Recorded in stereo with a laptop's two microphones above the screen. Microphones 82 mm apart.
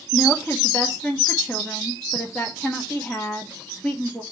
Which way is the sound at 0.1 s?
5° right (ahead or behind).